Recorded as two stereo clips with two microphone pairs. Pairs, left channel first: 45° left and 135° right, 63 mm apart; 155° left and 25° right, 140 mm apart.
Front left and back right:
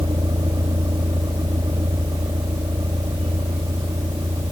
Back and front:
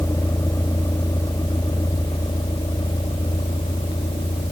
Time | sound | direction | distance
0.0 | a vehicle | 135° right | ?